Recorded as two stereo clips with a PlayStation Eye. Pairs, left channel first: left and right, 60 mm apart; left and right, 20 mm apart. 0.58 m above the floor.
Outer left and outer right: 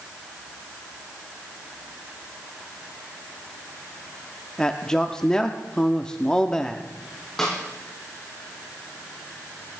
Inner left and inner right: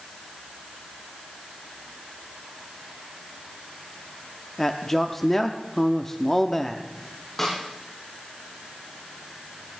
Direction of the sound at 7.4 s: 5° left (ahead or behind).